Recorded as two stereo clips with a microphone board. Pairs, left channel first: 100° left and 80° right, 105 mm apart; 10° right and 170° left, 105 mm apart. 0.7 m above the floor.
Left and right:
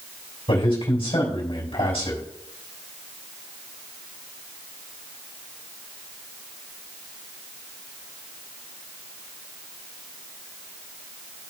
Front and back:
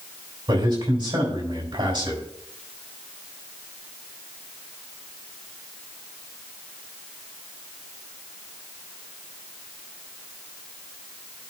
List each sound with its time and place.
0.5 s a man speaking: 130° left, 3 m